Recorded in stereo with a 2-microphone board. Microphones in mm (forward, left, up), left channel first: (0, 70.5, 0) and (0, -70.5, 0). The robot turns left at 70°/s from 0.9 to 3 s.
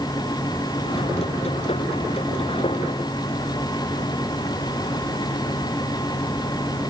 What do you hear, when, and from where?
Only background noise.